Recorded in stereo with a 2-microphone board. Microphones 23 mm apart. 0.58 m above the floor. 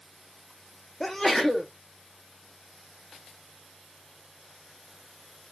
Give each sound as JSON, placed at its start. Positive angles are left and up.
{"t": 1.0, "sound": "a sneeze", "side_deg": 10, "distance_m": 0.6}